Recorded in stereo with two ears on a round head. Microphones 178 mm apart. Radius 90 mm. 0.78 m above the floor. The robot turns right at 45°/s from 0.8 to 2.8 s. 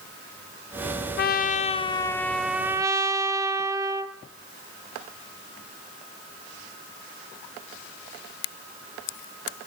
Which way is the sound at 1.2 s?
125° left.